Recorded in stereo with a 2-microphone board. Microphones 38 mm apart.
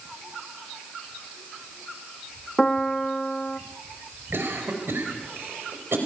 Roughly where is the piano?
Centre.